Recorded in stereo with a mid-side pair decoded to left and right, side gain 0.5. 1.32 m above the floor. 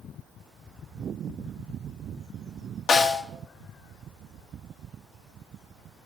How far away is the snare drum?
About 1.3 m.